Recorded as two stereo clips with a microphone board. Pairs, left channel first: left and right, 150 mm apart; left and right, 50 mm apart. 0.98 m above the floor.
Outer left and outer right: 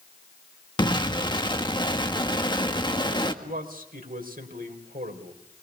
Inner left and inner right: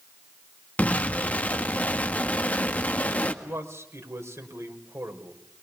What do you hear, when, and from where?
0.8 s an explosion: 30° left (ahead or behind), 1.8 m
3.4 s a man speaking: 70° right (ahead or behind), 4.5 m